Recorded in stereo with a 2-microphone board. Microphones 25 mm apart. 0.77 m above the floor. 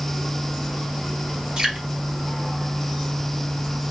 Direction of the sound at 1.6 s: 40° right (ahead or behind).